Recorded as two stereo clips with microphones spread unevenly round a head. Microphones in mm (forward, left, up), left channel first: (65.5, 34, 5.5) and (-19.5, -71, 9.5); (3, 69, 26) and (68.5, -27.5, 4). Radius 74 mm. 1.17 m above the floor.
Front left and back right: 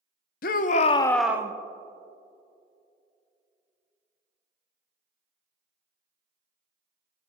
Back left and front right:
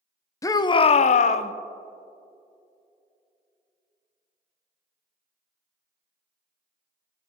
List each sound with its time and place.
0.4 s a shout: 55° left, 0.8 m; by 1.5 s 165° left, 0.6 m